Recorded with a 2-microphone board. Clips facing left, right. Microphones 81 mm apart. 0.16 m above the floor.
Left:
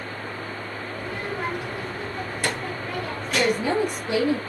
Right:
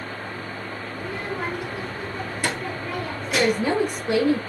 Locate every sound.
1.0 s a child speaking: 5° right (ahead or behind), 1.8 m
3.3 s a woman speaking: 30° right (ahead or behind), 1.4 m